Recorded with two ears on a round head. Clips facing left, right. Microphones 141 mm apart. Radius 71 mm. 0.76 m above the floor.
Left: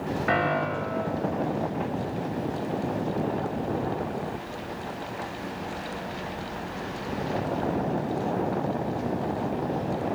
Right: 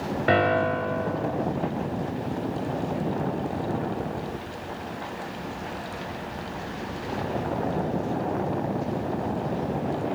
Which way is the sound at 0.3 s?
35° right (ahead or behind).